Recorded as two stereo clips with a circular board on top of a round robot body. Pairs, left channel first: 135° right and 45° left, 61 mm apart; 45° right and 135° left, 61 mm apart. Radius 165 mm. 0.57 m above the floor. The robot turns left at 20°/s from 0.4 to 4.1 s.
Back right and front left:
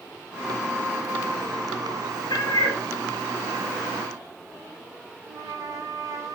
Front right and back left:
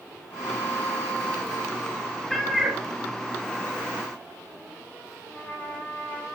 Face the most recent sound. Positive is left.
turn(degrees=25)